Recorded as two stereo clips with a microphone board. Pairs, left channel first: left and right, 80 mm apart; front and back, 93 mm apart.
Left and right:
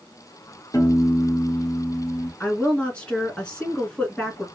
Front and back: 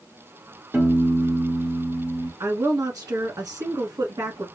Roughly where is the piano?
Behind left.